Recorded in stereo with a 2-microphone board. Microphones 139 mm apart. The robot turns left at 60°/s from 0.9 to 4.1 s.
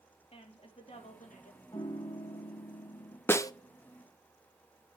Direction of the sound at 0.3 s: 135° left.